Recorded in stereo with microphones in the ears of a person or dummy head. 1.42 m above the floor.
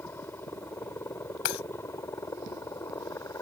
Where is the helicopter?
10° left (ahead or behind); by 3.4 s 15° left (ahead or behind).